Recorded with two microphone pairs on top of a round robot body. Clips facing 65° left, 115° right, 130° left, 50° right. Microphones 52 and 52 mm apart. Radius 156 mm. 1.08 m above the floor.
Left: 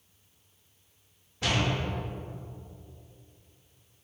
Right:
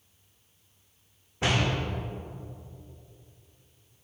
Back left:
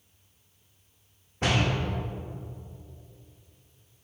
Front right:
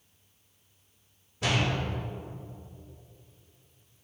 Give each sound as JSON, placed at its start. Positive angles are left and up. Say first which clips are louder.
{"t": 1.4, "sound": "a door slam", "louder": "right 2 dB, back left 2 dB", "azimuth_deg": -175, "distance_m": 1.3}